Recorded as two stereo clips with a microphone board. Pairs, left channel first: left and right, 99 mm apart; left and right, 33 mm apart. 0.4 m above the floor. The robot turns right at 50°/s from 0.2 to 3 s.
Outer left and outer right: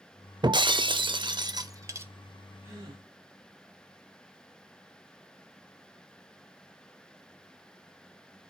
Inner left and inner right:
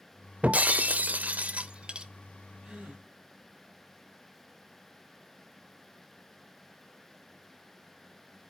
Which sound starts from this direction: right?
A gasp, at 2.6 s.